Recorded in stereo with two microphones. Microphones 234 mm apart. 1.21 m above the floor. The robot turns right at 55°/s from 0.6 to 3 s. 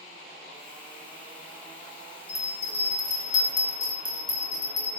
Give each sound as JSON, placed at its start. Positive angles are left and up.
{"t": 2.3, "sound": "a bell", "azimuth_deg": 35, "distance_m": 1.0}